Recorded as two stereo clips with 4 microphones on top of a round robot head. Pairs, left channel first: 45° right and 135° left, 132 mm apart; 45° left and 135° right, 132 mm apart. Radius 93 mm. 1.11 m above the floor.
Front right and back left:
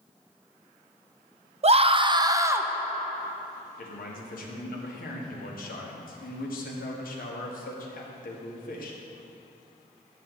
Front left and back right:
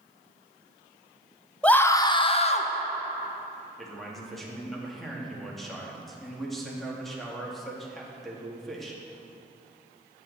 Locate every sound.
1.6 s a scream: 125° left, 0.9 m; by 2.7 s 65° left, 1.2 m
3.8 s a man speaking: 45° right, 2.5 m